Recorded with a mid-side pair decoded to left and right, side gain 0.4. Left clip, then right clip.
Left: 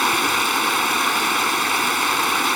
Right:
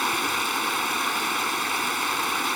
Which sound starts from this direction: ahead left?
Running water, at 0.0 s.